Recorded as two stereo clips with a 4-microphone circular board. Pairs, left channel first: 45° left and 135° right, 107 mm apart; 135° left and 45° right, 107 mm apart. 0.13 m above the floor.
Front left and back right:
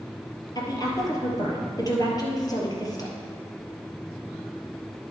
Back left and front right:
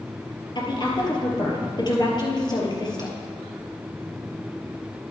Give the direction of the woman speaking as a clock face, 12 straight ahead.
9 o'clock.